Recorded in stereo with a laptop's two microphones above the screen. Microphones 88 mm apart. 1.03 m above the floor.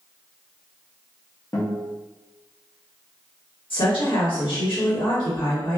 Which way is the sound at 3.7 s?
70° left (ahead or behind).